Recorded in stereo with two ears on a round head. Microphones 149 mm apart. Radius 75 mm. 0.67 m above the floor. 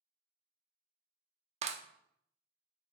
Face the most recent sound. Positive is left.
turn(degrees=-40)  # may be behind; listen again after turning